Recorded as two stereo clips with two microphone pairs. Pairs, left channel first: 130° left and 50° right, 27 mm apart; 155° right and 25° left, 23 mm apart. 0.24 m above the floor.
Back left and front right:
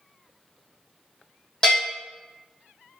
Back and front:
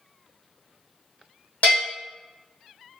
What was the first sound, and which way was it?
A bell, 170° right.